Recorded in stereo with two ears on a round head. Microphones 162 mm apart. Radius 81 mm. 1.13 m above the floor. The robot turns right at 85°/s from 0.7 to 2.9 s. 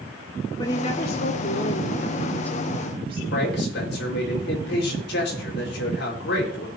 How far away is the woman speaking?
About 2.0 m.